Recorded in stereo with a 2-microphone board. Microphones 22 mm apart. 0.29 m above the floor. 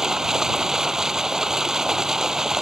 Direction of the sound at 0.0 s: 20° right (ahead or behind).